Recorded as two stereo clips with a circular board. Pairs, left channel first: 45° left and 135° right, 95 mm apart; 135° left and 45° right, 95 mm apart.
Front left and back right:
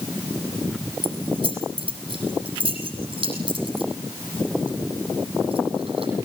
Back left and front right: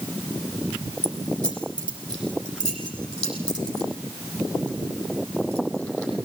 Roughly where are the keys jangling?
Behind right.